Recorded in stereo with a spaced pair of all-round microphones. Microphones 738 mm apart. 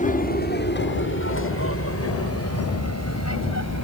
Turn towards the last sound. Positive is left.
turn(degrees=20)  # may be behind; listen again after turning